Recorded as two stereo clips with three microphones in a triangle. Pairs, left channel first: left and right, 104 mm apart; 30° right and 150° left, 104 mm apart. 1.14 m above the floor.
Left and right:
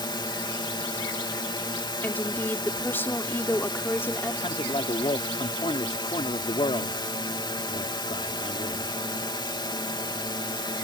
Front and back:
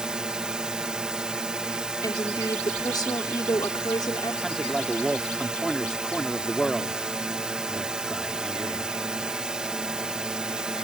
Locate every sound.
0.0 s a drone: 70° left
2.0 s a woman speaking: 20° left
4.4 s a man speaking: 60° left